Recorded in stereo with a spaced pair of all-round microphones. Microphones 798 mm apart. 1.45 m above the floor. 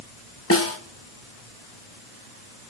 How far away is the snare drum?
About 0.9 m.